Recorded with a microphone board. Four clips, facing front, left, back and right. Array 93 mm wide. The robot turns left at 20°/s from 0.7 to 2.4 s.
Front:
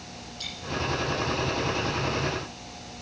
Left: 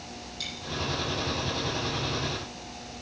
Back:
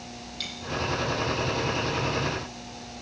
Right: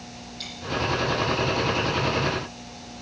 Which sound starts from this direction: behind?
A dropped coin, at 0.4 s.